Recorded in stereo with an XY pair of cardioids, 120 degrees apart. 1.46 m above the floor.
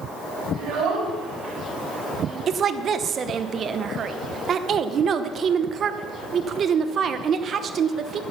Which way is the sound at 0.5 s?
70° right.